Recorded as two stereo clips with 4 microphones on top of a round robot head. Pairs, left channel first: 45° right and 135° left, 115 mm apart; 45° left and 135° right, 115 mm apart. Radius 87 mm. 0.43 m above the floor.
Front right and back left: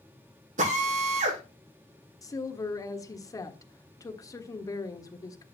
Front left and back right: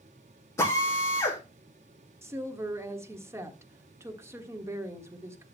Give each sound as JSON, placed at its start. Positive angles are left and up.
{"t": 0.6, "sound": "a drill", "azimuth_deg": 115, "distance_m": 8.0}
{"t": 2.2, "sound": "a woman speaking", "azimuth_deg": -85, "distance_m": 1.5}